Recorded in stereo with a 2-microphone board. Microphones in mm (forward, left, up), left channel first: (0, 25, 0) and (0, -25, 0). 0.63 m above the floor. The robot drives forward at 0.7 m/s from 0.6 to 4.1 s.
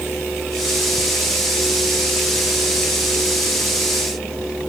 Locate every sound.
Only background noise.